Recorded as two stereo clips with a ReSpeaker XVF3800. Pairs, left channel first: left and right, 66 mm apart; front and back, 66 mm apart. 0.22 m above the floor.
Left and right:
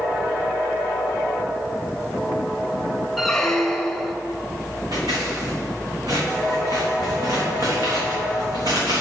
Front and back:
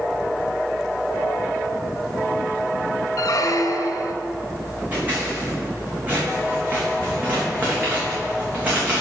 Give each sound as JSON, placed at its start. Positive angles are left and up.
{"t": 3.2, "sound": "a squeak", "azimuth_deg": 5, "distance_m": 0.8}
{"t": 4.9, "sound": "scissors", "azimuth_deg": -115, "distance_m": 3.5}